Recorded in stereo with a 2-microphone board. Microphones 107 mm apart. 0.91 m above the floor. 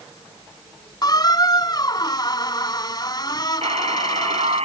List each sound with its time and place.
1.0 s a squeak: 40° left (ahead or behind)
3.6 s a buzzer: 80° right